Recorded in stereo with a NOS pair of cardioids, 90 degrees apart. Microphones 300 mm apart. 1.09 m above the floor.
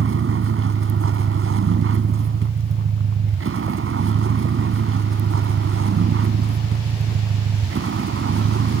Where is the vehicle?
45° right.